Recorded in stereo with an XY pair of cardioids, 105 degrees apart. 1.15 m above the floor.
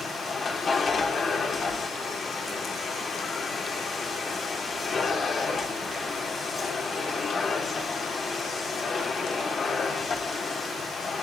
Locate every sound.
0.0 s a machine running: 40° left, 3.5 m